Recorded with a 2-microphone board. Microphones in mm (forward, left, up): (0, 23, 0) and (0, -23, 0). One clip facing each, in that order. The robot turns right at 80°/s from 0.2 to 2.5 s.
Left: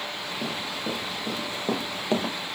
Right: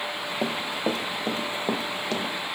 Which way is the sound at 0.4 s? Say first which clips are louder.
Right 5 dB; 60° right (ahead or behind).